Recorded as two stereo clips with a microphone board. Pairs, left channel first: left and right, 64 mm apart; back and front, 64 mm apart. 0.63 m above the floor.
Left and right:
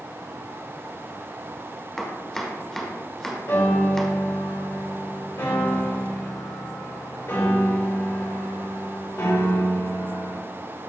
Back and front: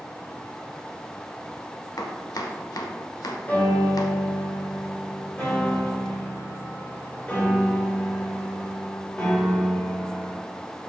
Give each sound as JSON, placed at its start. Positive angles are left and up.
{"t": 2.0, "sound": "chopping", "azimuth_deg": 170, "distance_m": 1.0}
{"t": 3.5, "sound": "a piano", "azimuth_deg": 120, "distance_m": 3.0}